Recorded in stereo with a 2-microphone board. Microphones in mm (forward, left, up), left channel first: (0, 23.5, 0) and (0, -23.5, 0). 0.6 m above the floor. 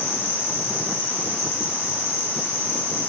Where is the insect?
70° left (ahead or behind), 1.3 m.